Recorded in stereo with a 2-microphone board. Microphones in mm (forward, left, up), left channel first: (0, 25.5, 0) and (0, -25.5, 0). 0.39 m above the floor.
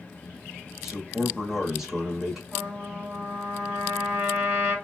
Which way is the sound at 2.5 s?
20° right (ahead or behind).